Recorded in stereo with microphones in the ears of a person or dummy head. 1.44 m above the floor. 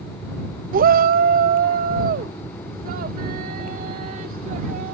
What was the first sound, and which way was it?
A shout, 45° right (ahead or behind).